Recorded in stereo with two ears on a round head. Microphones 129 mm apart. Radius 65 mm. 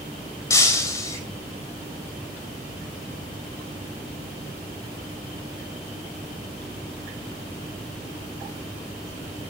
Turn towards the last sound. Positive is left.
turn(degrees=20)  # may be behind; listen again after turning